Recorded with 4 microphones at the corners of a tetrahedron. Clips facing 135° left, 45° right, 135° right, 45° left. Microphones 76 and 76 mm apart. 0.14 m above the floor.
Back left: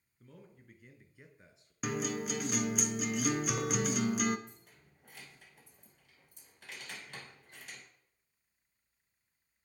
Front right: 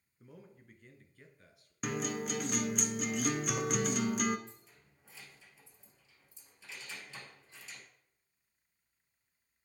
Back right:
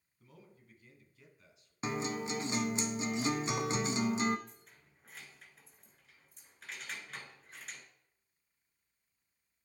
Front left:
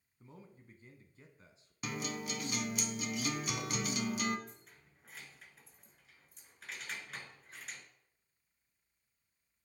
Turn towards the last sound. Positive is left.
turn(degrees=135)